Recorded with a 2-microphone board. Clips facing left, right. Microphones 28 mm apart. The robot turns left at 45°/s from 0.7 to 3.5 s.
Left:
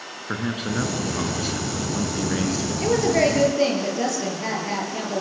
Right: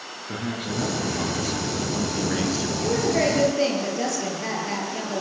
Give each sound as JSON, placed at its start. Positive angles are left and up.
{"t": 0.3, "sound": "a man speaking", "azimuth_deg": 70, "distance_m": 4.5}
{"t": 2.8, "sound": "a woman speaking", "azimuth_deg": 35, "distance_m": 7.5}